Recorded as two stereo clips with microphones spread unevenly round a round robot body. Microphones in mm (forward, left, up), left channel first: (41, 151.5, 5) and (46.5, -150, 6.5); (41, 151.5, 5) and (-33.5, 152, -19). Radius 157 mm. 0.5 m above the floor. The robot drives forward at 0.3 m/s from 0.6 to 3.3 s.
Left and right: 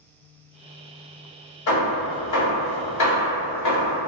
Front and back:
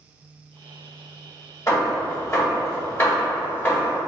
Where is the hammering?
55° left, 1.7 m; by 4.0 s 70° left, 1.5 m.